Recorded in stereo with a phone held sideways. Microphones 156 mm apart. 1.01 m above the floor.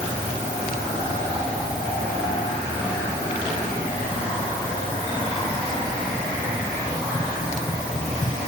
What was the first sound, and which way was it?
Only background noise.